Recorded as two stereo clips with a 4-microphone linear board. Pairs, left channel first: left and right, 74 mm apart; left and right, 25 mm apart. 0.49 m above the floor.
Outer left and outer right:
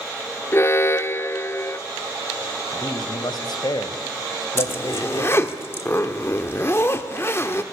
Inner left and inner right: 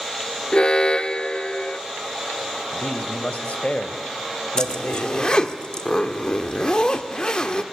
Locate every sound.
0.5 s an alarm: 35° left (ahead or behind), 0.5 m
2.7 s a man speaking: 70° left (ahead or behind), 2 m
4.6 s a zipper: 35° left (ahead or behind), 1.3 m